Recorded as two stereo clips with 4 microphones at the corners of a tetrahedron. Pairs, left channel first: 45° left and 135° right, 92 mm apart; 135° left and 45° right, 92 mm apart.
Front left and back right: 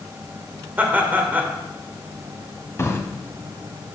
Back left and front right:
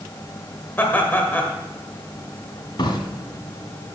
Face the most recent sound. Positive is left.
turn(degrees=105)